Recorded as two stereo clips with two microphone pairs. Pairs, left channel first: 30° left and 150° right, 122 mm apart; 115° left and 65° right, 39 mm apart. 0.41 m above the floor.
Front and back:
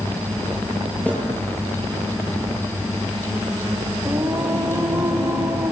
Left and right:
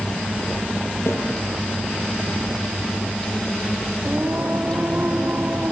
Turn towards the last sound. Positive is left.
turn(degrees=-75)